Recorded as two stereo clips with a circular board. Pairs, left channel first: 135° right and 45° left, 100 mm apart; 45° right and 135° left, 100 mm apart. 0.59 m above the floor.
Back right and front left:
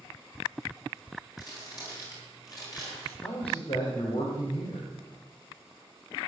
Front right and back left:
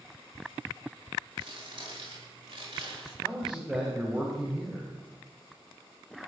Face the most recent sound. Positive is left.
turn(degrees=-140)